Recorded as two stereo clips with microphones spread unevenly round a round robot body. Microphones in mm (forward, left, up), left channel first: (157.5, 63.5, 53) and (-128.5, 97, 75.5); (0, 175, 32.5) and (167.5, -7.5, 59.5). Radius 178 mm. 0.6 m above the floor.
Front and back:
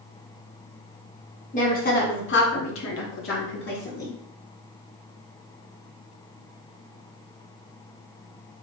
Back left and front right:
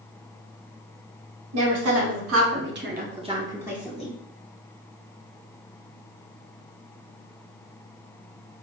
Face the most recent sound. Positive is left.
turn(degrees=50)